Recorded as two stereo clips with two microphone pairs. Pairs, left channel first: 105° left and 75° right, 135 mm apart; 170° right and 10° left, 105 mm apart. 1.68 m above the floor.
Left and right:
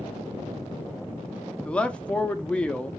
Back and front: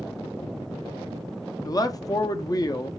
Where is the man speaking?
Straight behind, 0.5 m.